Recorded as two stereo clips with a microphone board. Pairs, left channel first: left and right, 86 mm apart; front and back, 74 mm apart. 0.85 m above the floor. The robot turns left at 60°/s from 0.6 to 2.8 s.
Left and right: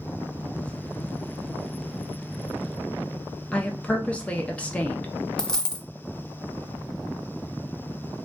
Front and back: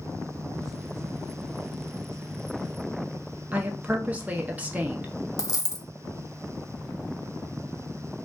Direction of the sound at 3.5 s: 145° left.